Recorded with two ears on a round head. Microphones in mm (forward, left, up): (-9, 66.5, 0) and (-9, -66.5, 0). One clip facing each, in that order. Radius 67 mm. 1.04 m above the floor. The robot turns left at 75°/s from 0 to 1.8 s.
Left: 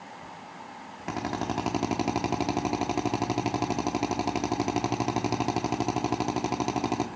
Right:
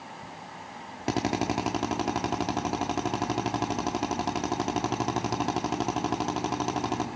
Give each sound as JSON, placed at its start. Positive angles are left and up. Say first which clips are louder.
{"t": 1.1, "sound": "a drill", "louder": "right 4 dB", "azimuth_deg": -135, "distance_m": 1.0}